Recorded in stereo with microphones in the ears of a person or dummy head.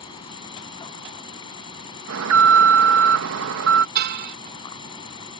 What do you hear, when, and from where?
0.0 s an insect: 35° left (ahead or behind)
2.1 s an alarm: 70° right (ahead or behind)
4.0 s a car horn: 60° right (ahead or behind)